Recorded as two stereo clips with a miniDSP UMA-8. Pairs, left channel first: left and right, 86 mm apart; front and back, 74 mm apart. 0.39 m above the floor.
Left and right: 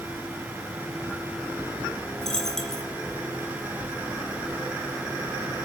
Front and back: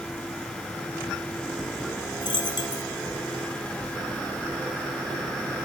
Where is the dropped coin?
5° left, 1.3 m.